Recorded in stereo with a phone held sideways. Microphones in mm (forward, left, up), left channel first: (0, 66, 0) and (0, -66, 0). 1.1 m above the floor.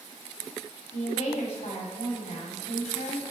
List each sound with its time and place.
0.9 s a woman speaking: 55° left (ahead or behind), 2.5 m